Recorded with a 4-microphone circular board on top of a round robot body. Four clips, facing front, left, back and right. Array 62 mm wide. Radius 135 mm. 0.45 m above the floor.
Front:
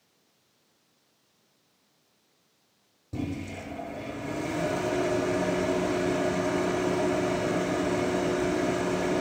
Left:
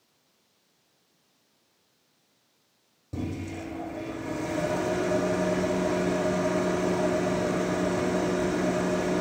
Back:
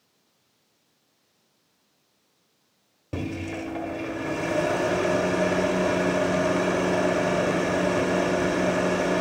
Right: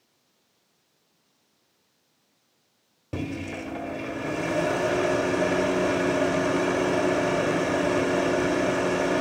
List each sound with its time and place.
3.1 s a microwave: 130° right, 1.3 m